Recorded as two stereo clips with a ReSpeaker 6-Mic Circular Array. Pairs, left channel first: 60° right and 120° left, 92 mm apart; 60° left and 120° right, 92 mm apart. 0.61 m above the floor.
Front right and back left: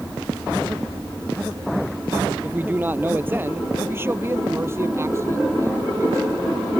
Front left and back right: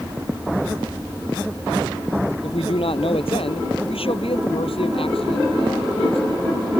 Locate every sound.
2.4 s a man speaking: 50° left; by 6.2 s 65° left